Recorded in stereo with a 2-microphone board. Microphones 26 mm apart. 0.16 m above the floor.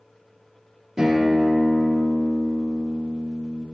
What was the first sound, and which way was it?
A guitar, 30° right (ahead or behind).